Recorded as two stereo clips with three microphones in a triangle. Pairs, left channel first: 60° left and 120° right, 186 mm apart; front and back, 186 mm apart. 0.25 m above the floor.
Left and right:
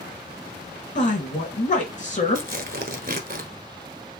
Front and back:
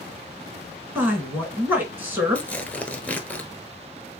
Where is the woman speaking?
100° left, 2.5 m.